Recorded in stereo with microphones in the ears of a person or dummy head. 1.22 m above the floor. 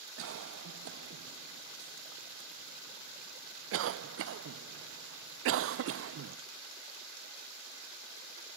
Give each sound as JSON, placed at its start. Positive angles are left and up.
{"t": 0.2, "sound": "a cough", "side_deg": -60, "distance_m": 0.5}